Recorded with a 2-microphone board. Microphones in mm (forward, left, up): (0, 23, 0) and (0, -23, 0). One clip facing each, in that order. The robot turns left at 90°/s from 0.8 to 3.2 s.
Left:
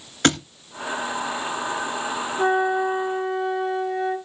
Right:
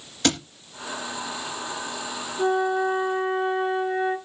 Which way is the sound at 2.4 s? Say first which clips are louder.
Left 1 dB; 40° left.